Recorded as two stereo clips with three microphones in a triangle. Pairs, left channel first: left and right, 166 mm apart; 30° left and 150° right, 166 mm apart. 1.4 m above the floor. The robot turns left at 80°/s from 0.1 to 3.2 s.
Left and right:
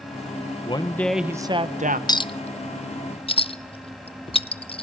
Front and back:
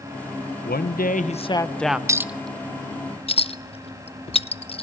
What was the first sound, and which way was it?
A man speaking, 40° left.